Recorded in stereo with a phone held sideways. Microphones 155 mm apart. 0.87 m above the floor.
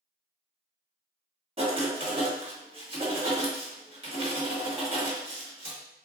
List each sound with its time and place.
1.6 s writing: 35° right (ahead or behind), 1.1 m